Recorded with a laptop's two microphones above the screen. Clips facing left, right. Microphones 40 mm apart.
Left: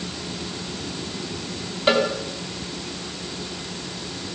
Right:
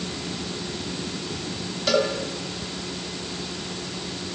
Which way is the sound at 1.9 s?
30° left (ahead or behind).